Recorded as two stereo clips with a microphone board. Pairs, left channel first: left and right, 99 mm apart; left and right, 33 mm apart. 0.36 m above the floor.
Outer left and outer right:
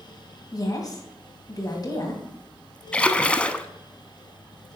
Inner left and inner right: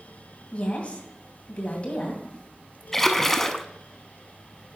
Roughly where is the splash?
Centre.